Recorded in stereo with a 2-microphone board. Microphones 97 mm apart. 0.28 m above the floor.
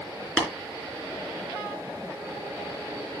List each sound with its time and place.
0.4 s tapping: 15° left (ahead or behind), 3 m